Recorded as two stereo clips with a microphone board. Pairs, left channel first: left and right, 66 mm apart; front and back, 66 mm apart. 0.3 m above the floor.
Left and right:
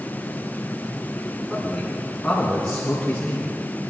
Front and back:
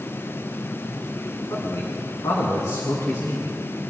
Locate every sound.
1.5 s a man speaking: straight ahead, 2.5 m; by 3.5 s 20° left, 3.5 m